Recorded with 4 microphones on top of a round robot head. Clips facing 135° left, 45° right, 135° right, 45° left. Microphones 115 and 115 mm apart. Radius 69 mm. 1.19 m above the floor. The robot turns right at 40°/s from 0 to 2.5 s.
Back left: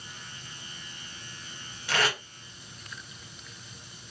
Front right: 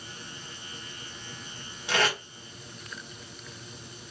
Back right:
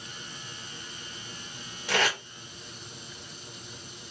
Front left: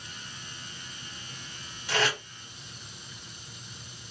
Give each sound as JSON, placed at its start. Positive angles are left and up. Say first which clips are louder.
{"t": 1.9, "sound": "tape being pulled", "louder": "front right 1 dB, back right 1 dB", "azimuth_deg": -115, "distance_m": 1.3}